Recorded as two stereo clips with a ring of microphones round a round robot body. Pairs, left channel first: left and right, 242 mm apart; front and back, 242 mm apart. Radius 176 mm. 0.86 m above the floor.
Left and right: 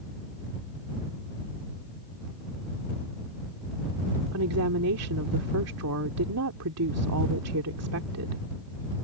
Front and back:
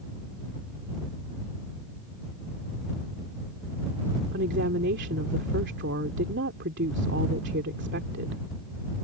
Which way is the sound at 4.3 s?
125° right.